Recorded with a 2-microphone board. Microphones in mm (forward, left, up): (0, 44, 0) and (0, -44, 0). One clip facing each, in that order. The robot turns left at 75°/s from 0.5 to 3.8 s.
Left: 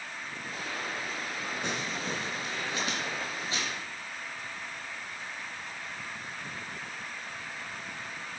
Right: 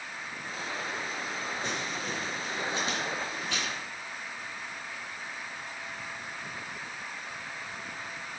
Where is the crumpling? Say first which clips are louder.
Even; 60° left (ahead or behind), 3 m; by 3.8 s 80° right, 3 m.